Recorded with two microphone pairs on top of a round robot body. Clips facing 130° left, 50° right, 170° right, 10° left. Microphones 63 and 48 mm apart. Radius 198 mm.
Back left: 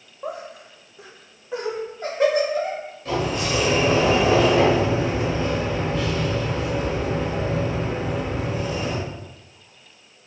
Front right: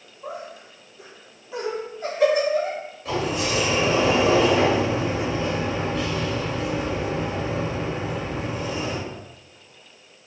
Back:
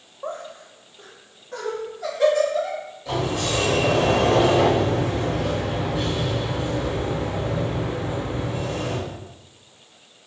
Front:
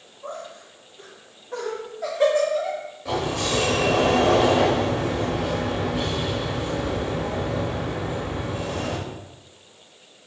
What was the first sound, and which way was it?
Laughter, 140° left.